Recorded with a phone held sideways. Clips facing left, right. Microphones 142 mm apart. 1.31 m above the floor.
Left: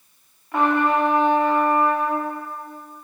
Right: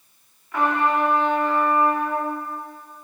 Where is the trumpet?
65° left (ahead or behind), 1.7 m.